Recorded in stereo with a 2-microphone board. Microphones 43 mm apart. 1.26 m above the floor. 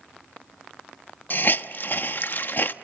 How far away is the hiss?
About 1.1 m.